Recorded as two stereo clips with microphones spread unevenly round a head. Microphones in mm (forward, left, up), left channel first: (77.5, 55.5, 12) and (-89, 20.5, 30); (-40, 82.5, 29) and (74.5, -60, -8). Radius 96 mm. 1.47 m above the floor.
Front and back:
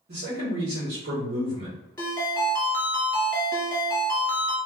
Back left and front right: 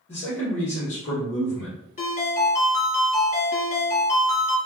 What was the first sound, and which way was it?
A man speaking, 170° left.